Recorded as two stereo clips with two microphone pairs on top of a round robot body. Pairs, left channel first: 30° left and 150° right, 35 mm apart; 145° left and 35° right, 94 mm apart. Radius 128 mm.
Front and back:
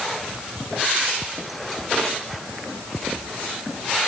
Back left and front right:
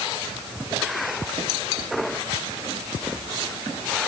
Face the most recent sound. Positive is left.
No sound to turn to.